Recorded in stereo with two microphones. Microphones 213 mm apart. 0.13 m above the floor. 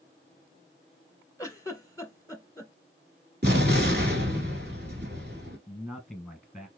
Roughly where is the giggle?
Centre.